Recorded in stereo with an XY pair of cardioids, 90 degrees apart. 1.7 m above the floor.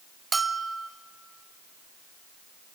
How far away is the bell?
About 0.9 m.